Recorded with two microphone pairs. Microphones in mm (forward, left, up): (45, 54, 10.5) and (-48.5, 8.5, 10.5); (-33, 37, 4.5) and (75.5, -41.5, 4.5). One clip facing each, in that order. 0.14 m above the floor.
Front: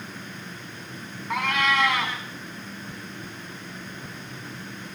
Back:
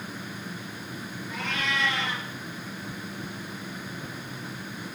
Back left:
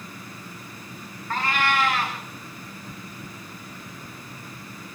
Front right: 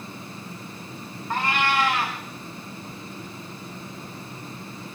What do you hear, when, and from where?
1.3 s a cat meowing: 30° left, 7 m